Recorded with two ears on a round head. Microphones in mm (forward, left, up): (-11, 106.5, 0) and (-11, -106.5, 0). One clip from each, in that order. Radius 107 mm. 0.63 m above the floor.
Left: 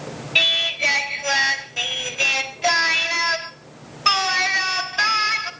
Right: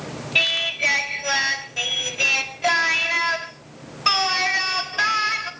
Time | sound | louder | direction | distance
0.3 | singing | left 2 dB | 15° left (ahead or behind) | 1.3 m